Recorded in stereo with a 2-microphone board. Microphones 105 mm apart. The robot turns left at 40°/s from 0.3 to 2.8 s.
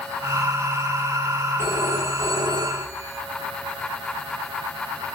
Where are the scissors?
I don't hear scissors.